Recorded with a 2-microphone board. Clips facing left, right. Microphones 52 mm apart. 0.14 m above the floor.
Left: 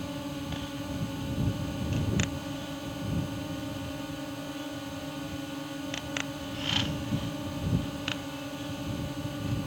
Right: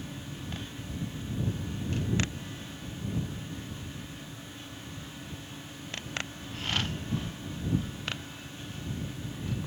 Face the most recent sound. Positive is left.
turn(degrees=65)  # may be behind; listen again after turning